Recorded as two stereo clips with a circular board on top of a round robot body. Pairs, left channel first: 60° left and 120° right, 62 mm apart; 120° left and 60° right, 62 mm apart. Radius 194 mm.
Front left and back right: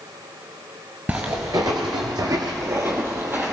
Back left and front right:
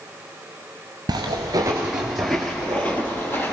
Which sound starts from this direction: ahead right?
Footsteps, at 1.1 s.